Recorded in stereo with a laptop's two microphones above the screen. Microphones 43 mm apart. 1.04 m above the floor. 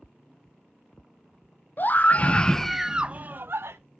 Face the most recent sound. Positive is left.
turn(degrees=-65)  # may be behind; listen again after turning